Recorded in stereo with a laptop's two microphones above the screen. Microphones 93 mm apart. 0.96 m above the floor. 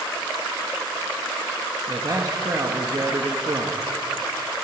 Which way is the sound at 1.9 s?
40° right (ahead or behind).